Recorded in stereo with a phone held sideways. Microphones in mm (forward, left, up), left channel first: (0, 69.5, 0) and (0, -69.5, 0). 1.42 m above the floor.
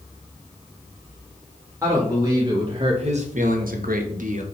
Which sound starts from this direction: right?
A man speaking, at 1.8 s.